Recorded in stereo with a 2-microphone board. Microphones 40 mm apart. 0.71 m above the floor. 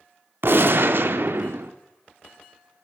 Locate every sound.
0.4 s a gunshot: 60° right (ahead or behind), 0.6 m